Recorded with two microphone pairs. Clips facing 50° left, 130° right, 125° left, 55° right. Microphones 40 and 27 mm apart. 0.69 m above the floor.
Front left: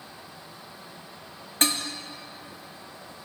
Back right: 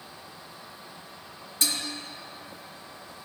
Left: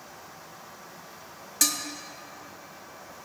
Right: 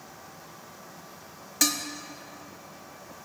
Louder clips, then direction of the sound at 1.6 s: Front left 4 dB, right 1 dB; 15° left.